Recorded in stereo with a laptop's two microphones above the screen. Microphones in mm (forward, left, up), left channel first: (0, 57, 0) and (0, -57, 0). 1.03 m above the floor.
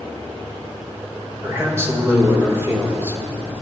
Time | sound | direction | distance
1.4 | a man speaking | 20° right (ahead or behind) | 4.5 m